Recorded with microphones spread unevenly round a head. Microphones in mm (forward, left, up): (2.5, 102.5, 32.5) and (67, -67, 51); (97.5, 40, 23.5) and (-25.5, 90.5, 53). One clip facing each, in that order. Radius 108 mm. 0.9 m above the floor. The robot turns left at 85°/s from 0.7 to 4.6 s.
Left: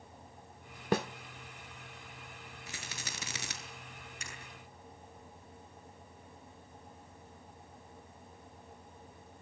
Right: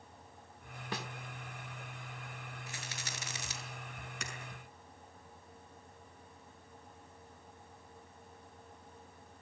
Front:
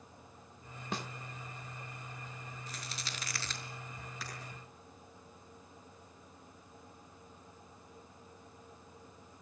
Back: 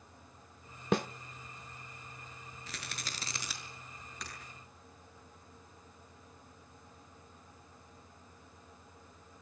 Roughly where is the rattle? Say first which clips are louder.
Left 3 dB, back 3 dB; behind left.